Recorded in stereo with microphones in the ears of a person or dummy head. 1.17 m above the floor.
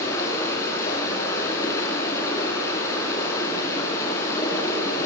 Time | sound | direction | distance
0.0 | running water | 20° left (ahead or behind) | 5 m